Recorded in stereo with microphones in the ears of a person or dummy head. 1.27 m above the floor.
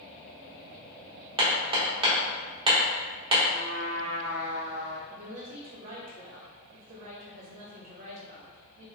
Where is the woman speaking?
40° right (ahead or behind), 1.2 m.